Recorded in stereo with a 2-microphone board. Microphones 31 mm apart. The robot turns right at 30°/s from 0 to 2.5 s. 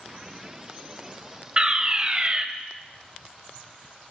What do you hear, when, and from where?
1.6 s a fire alarm: 25° right (ahead or behind), 2 m